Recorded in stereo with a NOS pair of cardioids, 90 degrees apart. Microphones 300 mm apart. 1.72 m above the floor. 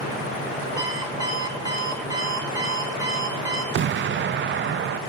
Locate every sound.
0.8 s an alarm clock: 10° right, 7.5 m
3.7 s an explosion: 40° right, 0.5 m